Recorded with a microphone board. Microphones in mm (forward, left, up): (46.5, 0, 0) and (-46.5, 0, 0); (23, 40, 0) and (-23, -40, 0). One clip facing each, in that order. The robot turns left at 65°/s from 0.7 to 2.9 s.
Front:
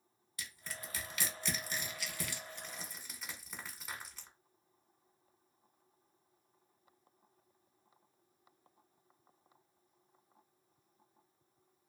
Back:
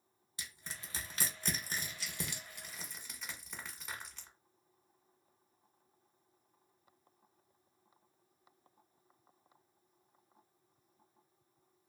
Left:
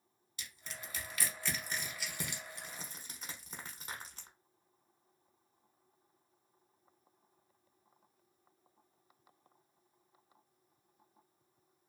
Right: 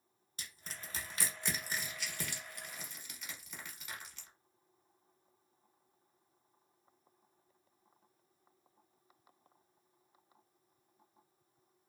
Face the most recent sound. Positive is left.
turn(degrees=85)